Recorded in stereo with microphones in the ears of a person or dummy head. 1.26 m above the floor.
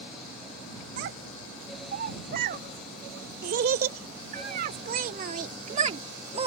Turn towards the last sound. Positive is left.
turn(degrees=-30)  # may be behind; listen again after turning